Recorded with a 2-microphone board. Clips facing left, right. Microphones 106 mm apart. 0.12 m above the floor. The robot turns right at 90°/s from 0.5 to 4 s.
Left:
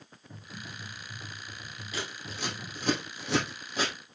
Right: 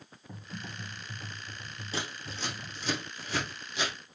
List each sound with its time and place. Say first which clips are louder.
0.3 s typing on a keyboard: right 2 dB; 110° right, 5 m; by 2.9 s 110° left, 5 m
1.9 s scissors: right 1 dB; 30° right (ahead or behind), 3.5 m; by 3.9 s 30° left (ahead or behind), 3.5 m